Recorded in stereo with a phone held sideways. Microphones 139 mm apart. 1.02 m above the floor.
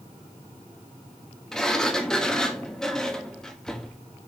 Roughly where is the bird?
I don't hear a bird.